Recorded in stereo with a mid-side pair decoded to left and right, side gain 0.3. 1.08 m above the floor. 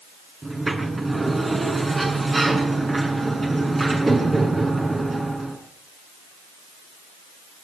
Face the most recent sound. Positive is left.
turn(degrees=-35)